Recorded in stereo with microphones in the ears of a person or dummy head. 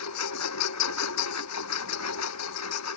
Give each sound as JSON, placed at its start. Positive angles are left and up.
{"t": 0.0, "sound": "a lawn mower", "side_deg": 90}